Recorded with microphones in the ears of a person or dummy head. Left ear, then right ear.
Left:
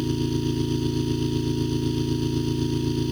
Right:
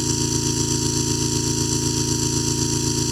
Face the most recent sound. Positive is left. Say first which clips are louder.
# right 4 dB
turn(degrees=-55)  # may be behind; listen again after turning